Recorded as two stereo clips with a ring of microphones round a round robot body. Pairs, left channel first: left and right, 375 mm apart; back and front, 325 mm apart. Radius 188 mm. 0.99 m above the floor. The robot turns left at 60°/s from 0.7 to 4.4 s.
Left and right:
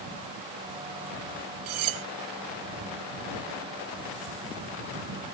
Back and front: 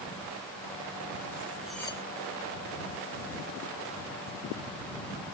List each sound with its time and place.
1.7 s cutlery clinking: 85° right; by 2.0 s 110° right